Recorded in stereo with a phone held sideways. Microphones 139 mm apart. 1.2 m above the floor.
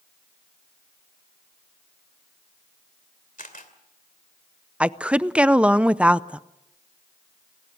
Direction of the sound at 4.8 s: 5° right (ahead or behind).